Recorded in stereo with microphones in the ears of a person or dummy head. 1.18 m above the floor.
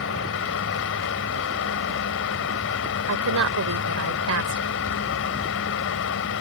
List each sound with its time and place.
0.0 s a fan: 65° left (ahead or behind)
3.1 s a woman speaking: 85° right